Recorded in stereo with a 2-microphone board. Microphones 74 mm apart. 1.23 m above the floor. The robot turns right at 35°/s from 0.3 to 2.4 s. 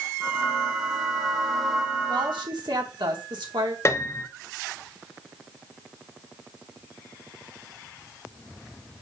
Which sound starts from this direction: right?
A woman speaking, at 2.1 s.